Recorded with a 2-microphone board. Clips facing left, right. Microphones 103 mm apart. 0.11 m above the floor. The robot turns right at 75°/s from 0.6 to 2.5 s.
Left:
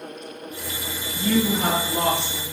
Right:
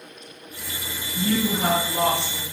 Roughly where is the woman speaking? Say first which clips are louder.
Left 2 dB; ahead right.